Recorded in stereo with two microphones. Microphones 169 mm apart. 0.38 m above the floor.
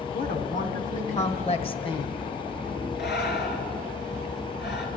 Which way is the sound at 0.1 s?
60° left (ahead or behind).